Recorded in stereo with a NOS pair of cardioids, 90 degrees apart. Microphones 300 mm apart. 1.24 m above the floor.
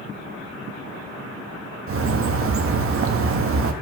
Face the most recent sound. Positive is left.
turn(degrees=-45)